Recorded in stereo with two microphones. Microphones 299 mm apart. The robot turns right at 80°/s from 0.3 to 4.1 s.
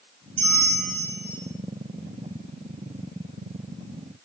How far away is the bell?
About 2 m.